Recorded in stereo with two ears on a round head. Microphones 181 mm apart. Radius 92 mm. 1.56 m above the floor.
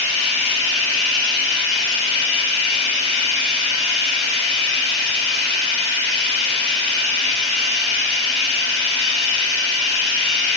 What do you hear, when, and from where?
0.0 s running water: 55° left (ahead or behind), 3 m